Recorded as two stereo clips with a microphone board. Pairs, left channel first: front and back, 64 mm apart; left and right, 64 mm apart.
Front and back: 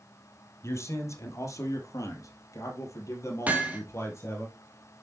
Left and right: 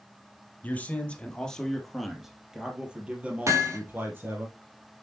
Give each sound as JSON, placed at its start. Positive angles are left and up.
{"t": 0.6, "sound": "a man speaking", "azimuth_deg": 30, "distance_m": 2.5}
{"t": 3.5, "sound": "hammering", "azimuth_deg": -115, "distance_m": 2.5}